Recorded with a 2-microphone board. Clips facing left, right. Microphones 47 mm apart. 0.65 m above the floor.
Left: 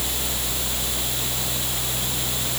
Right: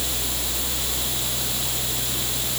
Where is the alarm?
No alarm in this recording.